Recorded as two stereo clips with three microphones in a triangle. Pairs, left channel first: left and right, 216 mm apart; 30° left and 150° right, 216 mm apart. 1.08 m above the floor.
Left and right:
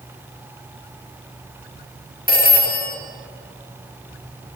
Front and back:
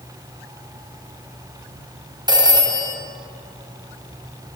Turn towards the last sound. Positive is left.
turn(degrees=140)